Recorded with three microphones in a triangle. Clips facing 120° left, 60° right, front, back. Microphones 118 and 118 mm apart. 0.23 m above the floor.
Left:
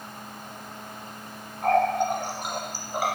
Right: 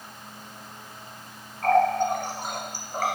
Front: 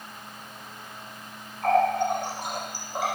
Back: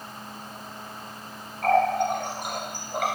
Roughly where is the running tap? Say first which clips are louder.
Right 1 dB, back 1 dB; behind.